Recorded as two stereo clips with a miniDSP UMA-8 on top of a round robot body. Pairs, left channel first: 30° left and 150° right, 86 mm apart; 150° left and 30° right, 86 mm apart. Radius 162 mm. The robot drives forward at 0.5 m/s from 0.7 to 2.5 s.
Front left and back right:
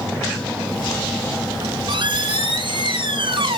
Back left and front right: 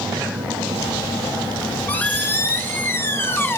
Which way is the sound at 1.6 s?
140° right.